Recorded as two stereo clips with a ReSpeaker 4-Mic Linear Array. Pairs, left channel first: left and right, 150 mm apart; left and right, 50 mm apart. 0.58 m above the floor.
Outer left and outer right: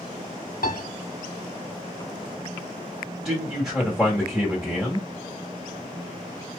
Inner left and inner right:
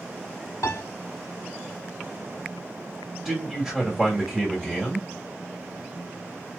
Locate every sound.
0.6 s a piano: 70° left (ahead or behind), 0.8 m
3.2 s a man speaking: 5° right (ahead or behind), 1.6 m